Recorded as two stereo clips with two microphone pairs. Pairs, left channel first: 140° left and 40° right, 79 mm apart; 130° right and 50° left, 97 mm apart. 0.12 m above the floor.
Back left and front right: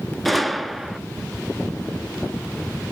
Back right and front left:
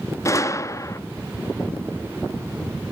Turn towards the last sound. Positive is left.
turn(degrees=-125)